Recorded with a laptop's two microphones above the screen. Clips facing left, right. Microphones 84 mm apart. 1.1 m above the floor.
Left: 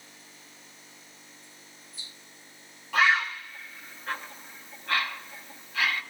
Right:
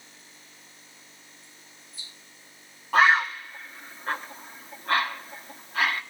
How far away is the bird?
About 1.2 m.